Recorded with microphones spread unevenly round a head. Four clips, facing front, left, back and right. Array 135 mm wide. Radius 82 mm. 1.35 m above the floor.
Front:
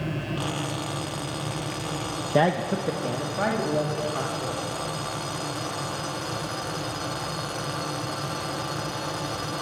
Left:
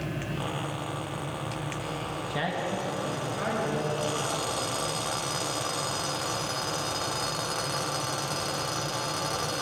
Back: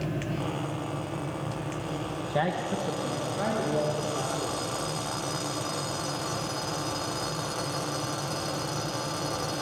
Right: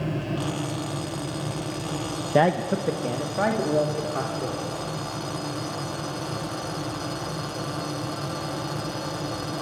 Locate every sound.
2.3 s a man speaking: 50° right, 0.9 m; by 4.6 s 95° right, 3 m